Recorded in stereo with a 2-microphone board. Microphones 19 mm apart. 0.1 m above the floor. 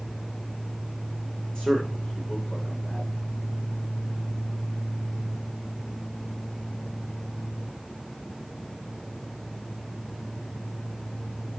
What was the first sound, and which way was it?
A man speaking, 55° left (ahead or behind).